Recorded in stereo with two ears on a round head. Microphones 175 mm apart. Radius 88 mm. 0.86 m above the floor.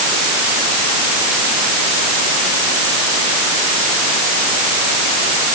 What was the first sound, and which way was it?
Only background noise.